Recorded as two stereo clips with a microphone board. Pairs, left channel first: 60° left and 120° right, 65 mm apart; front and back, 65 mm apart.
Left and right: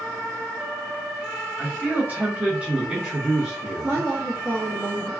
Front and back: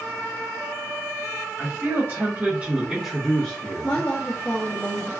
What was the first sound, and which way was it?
A man speaking, 175° right.